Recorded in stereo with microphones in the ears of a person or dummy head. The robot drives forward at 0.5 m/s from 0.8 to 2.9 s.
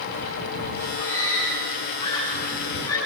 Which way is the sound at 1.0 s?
20° left (ahead or behind).